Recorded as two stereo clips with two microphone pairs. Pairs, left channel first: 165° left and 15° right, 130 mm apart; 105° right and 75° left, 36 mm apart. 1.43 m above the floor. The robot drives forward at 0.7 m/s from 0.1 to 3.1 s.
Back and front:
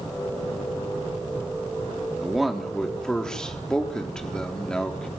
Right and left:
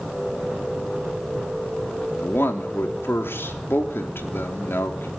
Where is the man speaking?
100° right, 3.5 m; by 5.1 s 110° right, 4 m.